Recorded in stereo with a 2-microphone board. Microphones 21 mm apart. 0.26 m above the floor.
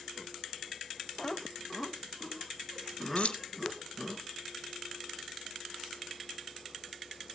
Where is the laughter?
20° left (ahead or behind), 1.2 m; by 4.2 s centre (ahead or behind), 3.5 m.